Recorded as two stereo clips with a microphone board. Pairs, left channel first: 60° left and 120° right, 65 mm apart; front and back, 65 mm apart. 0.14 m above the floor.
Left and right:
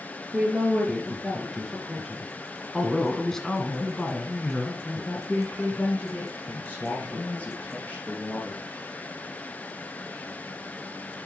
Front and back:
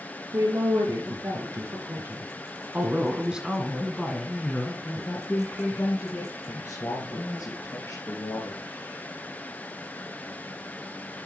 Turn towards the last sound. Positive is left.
turn(degrees=-5)